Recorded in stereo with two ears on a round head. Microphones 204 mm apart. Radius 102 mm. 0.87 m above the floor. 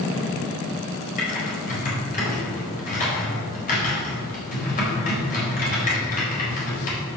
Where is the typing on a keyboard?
40° left (ahead or behind), 4 m.